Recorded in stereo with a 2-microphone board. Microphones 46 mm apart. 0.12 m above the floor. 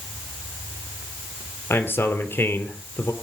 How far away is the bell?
No bell in this recording.